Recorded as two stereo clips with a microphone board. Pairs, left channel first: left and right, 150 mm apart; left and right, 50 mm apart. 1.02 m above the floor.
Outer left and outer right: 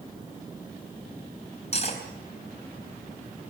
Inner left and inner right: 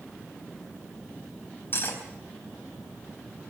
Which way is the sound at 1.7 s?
45° left (ahead or behind).